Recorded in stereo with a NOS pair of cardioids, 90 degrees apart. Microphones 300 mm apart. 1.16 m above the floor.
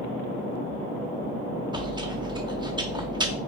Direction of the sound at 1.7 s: 15° right.